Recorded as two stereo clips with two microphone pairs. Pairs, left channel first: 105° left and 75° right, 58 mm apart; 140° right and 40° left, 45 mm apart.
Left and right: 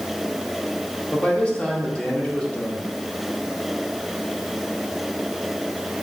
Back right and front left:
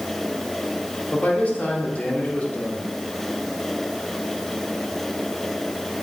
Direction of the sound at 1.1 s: 170° left.